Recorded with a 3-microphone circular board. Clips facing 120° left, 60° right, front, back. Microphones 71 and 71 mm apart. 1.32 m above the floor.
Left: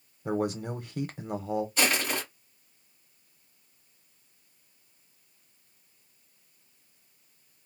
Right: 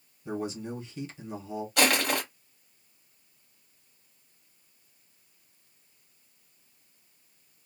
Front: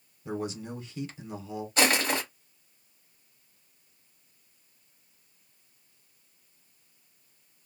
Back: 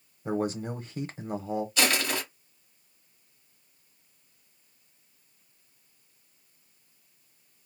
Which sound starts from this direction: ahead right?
Crushing, at 1.8 s.